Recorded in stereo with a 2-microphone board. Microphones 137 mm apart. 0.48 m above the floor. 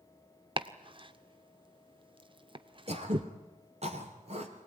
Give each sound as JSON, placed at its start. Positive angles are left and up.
{"t": 0.6, "sound": "chopping", "side_deg": -40, "distance_m": 0.8}
{"t": 2.9, "sound": "throat clearing", "side_deg": -50, "distance_m": 2.0}